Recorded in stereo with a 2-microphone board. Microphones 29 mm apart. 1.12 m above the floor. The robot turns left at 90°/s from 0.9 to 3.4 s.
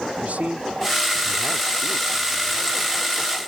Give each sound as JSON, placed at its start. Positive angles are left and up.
{"t": 0.2, "sound": "a man speaking", "azimuth_deg": -110}